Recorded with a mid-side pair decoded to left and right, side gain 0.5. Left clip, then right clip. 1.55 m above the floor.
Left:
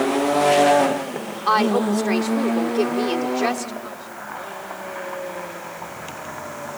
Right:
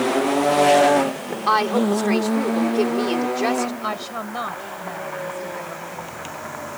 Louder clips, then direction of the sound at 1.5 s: Even; 5° left.